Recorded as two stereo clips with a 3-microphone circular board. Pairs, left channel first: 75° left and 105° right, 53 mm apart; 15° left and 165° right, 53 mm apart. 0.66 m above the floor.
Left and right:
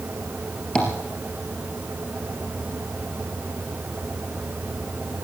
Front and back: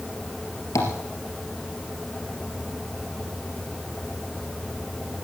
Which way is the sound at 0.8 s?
Straight ahead.